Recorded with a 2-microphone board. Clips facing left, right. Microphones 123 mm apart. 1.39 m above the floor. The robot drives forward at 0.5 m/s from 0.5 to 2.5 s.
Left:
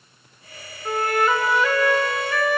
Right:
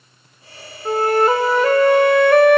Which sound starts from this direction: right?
A flute, at 0.8 s.